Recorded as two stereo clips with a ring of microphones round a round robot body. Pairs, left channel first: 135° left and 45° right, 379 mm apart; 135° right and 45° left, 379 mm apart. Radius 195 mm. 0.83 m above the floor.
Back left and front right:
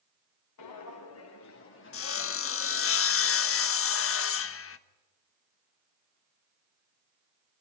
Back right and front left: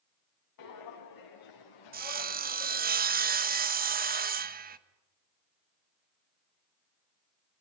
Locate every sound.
0.6 s footsteps: 175° right, 3.5 m; by 2.9 s 155° right, 3.5 m
1.9 s sawing: 100° left, 1.2 m